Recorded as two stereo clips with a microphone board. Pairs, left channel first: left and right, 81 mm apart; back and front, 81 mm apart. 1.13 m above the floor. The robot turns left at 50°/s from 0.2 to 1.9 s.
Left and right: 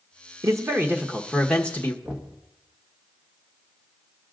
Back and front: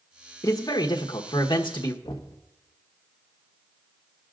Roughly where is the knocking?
Behind.